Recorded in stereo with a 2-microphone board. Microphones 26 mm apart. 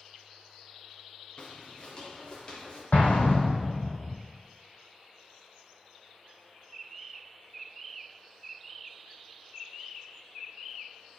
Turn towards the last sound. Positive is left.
turn(degrees=70)  # may be behind; listen again after turning